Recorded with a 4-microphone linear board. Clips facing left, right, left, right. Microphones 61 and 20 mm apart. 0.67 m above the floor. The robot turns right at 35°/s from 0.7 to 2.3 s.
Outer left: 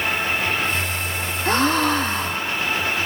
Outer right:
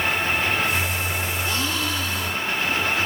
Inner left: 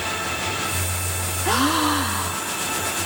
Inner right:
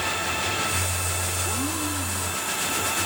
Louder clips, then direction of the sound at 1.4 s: Outer left 12 dB, inner left 8 dB; 50° left (ahead or behind).